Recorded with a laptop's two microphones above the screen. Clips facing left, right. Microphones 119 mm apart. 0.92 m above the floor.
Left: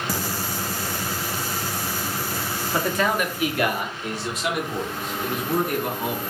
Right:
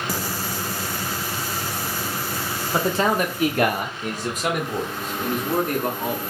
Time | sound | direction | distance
2.7 | a man speaking | 20° right (ahead or behind) | 0.7 m